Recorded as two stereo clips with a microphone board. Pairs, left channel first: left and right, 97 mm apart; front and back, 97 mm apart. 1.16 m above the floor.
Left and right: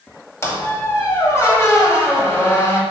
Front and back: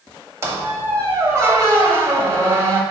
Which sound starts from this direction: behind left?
A squeak, at 0.4 s.